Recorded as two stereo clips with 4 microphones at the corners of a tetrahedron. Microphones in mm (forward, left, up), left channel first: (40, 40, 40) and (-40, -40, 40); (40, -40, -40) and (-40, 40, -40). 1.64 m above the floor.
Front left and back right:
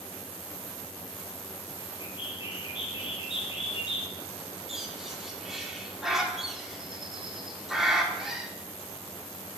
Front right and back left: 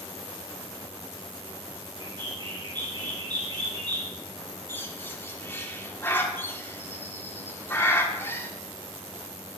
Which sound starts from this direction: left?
A bird, at 2.0 s.